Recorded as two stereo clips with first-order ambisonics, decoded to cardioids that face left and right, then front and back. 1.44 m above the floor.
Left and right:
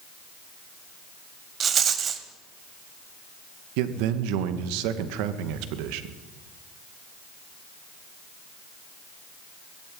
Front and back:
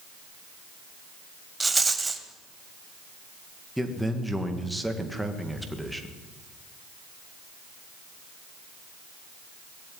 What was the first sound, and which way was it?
A rattle, 110° right.